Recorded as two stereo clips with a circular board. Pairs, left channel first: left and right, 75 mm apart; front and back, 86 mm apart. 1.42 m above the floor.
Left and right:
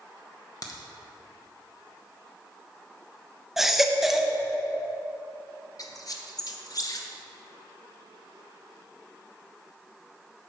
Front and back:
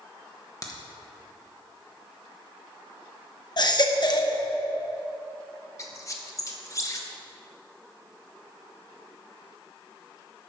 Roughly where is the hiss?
I don't hear a hiss.